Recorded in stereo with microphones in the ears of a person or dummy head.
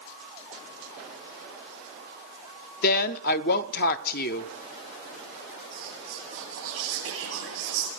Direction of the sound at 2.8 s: 50° left (ahead or behind).